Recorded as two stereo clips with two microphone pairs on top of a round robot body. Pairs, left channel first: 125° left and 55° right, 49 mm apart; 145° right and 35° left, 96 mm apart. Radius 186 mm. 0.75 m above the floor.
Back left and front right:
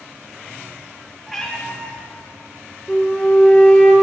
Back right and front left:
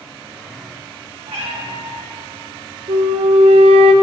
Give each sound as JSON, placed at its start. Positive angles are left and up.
{"t": 1.3, "sound": "a cat meowing", "azimuth_deg": 35, "distance_m": 2.5}
{"t": 2.9, "sound": "a flute", "azimuth_deg": 55, "distance_m": 0.6}